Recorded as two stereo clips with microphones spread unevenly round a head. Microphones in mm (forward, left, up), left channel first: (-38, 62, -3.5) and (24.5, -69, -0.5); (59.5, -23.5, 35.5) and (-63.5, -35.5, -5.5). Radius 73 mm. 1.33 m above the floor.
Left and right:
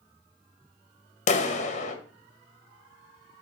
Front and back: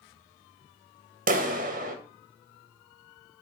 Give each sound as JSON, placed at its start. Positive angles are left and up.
{"t": 1.3, "sound": "a clap", "azimuth_deg": 160, "distance_m": 1.7}